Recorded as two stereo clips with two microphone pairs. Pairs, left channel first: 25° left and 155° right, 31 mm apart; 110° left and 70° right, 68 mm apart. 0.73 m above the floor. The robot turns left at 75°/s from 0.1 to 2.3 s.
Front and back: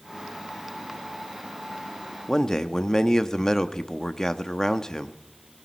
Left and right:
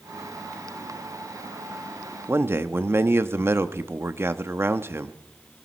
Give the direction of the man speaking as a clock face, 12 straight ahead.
1 o'clock.